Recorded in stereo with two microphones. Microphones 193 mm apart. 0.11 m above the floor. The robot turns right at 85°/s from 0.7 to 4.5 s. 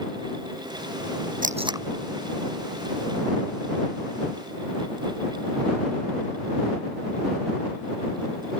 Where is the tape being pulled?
45° right (ahead or behind); by 1.9 s 10° right (ahead or behind).